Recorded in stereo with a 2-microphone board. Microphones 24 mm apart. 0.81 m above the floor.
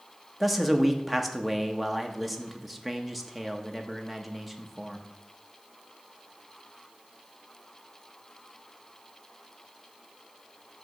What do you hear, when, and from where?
0.4 s a man speaking: centre (ahead or behind), 0.7 m